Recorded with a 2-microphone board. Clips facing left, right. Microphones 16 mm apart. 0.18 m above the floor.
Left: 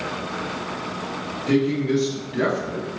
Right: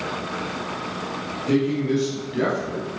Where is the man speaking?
5° left (ahead or behind), 1.2 m; by 2.9 s 5° right (ahead or behind), 1.2 m.